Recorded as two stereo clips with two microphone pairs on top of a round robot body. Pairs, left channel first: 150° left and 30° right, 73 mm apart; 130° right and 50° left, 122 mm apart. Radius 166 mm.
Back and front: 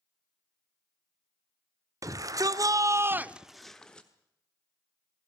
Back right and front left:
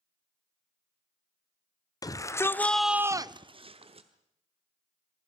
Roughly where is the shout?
Right.